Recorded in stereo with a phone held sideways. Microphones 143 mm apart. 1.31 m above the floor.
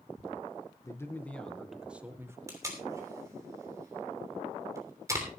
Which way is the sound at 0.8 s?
20° left (ahead or behind).